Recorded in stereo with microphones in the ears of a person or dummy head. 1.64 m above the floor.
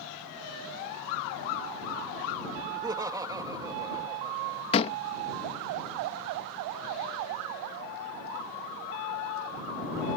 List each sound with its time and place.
2.7 s laughter: 20° right (ahead or behind)
4.7 s a door slam: 30° left (ahead or behind)